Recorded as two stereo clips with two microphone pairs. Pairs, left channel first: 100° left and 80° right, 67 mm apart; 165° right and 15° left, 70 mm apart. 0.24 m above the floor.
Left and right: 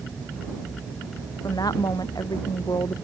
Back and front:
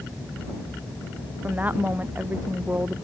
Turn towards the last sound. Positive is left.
turn(degrees=80)